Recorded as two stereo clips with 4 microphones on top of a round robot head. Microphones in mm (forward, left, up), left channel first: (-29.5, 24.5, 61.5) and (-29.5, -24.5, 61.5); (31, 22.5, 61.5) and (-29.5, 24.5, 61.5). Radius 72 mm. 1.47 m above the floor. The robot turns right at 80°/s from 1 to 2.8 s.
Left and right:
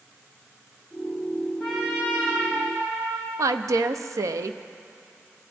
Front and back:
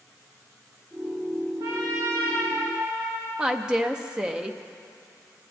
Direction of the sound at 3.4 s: 105° right.